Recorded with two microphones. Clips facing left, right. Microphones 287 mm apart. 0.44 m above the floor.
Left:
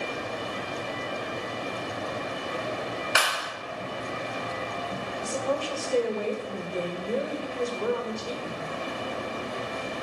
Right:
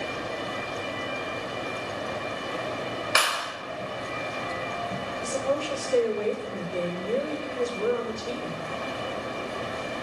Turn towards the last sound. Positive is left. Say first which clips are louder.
# right 2 dB
turn(degrees=-30)  # may be behind; listen again after turning